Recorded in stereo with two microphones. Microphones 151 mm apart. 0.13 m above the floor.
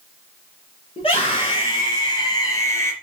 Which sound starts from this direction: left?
A scream, at 1.0 s.